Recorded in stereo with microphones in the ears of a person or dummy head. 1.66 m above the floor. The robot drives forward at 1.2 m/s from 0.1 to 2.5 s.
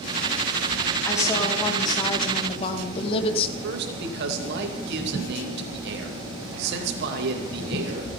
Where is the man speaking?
65° right (ahead or behind), 2.5 m.